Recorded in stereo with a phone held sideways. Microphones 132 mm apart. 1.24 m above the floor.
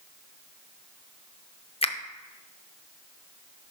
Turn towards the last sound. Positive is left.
turn(degrees=45)  # may be behind; listen again after turning